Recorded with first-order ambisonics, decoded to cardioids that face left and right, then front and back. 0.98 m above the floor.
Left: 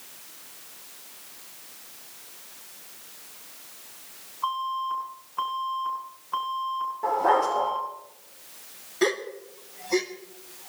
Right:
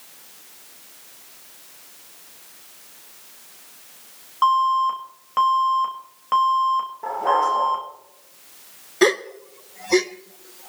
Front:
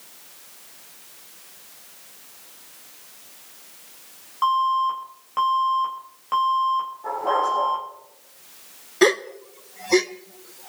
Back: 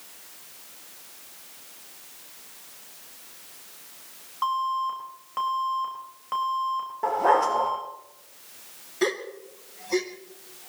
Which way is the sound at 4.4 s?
80° right.